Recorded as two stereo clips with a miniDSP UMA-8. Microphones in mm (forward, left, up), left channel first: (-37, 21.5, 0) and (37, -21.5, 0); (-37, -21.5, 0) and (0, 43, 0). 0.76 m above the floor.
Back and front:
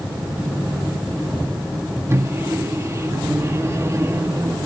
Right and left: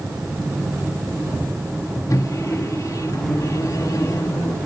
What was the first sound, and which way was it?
A microwave, 85° right.